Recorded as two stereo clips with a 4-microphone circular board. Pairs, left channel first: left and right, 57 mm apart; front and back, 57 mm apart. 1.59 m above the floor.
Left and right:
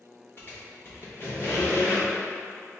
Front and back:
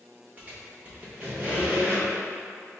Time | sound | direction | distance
0.4 | a squeak | 125° left | 1.0 m